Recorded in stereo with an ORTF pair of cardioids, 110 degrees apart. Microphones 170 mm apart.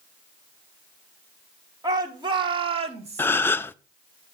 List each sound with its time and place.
1.8 s a shout: 25° right, 3 m; by 3.3 s 40° right, 2.5 m
3.2 s a gasp: 10° left, 0.5 m